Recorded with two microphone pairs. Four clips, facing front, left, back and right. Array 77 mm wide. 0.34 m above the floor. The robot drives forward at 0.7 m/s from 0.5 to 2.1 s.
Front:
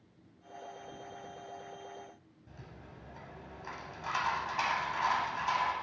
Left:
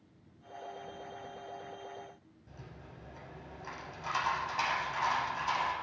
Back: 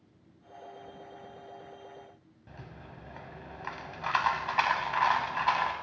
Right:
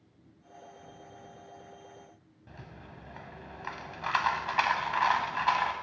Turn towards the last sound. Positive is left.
turn(degrees=-140)